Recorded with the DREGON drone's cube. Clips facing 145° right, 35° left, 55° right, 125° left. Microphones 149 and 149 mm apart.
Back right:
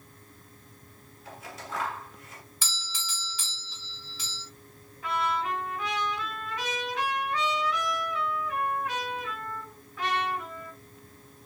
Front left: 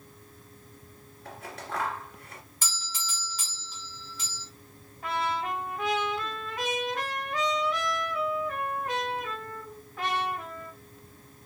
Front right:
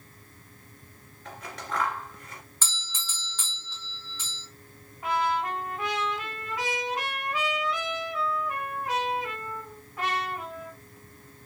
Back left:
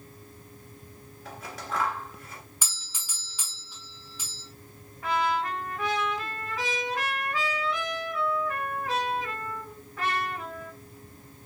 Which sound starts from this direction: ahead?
A trumpet, at 5.0 s.